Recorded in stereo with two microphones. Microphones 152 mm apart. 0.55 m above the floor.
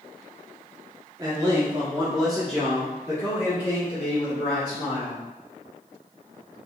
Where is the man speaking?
25° right (ahead or behind), 1.4 m; by 5.2 s 30° left (ahead or behind), 3 m.